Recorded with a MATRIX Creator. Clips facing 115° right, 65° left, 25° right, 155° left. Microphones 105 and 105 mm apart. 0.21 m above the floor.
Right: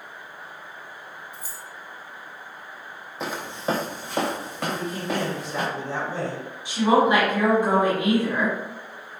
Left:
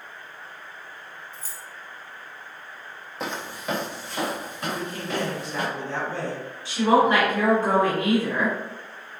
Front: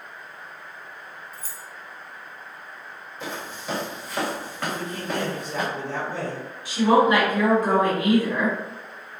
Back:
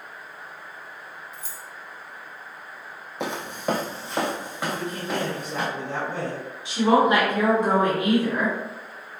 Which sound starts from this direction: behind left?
Footsteps, at 3.2 s.